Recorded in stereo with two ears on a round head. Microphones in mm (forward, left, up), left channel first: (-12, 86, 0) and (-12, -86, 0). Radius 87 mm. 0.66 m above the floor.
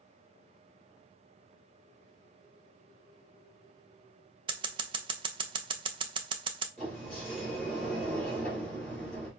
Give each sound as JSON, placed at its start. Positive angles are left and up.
{"t": 4.5, "sound": "scissors", "side_deg": -30, "distance_m": 0.5}
{"t": 6.8, "sound": "a sliding door", "side_deg": 5, "distance_m": 3.0}